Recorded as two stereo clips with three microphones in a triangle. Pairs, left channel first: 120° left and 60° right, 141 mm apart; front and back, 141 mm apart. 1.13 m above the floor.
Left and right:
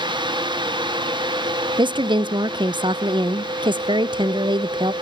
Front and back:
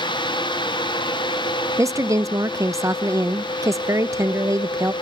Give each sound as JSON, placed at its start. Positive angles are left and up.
{"t": 1.8, "sound": "a woman speaking", "azimuth_deg": -115, "distance_m": 0.6}